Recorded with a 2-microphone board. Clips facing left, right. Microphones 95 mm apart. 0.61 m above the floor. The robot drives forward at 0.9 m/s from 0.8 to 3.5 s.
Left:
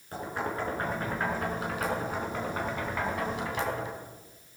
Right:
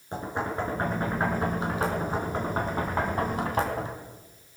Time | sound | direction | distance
0.1 | knocking | 25° right (ahead or behind) | 5 m